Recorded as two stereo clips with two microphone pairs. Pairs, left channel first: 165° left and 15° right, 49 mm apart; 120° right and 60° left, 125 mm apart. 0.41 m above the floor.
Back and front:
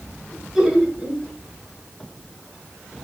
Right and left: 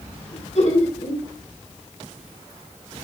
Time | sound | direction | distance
0.3 | laughter | 95° right | 4.5 m